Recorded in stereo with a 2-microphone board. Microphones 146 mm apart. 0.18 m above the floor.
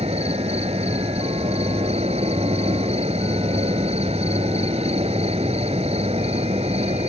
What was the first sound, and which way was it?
An insect, 45° right (ahead or behind).